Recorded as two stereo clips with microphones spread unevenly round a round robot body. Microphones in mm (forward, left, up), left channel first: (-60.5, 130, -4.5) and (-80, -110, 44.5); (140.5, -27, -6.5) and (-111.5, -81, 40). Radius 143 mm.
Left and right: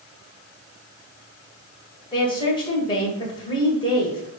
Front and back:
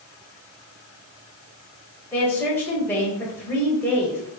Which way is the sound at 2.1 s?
70° left.